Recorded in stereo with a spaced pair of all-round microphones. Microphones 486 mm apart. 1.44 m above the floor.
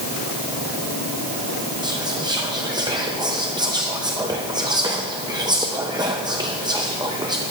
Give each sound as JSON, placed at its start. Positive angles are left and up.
{"t": 1.8, "sound": "whispering", "side_deg": -10, "distance_m": 0.5}